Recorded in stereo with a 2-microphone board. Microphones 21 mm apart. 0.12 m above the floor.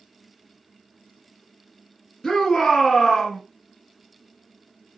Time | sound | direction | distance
2.2 | a shout | 10° left (ahead or behind) | 1.1 m